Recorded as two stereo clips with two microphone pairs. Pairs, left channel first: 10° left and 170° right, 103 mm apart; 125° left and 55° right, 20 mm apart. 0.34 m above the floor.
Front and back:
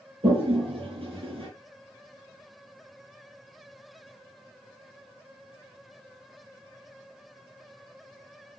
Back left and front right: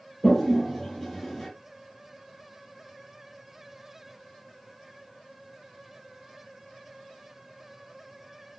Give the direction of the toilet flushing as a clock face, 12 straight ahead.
5 o'clock.